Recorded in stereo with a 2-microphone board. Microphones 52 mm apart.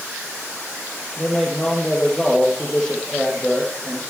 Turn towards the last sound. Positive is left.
turn(degrees=15)  # may be behind; listen again after turning